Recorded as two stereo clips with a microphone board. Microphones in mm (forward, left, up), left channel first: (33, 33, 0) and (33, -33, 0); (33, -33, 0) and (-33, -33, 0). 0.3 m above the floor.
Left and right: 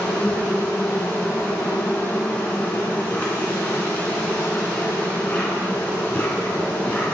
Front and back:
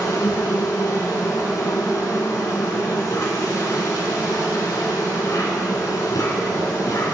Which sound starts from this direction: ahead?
An insect, at 0.0 s.